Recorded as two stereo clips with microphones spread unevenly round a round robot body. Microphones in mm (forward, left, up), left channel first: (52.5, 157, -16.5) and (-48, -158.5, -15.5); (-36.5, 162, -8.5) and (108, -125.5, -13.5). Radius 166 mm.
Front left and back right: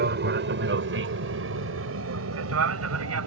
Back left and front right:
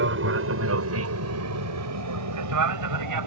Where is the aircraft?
75° right; by 3.3 s 70° right.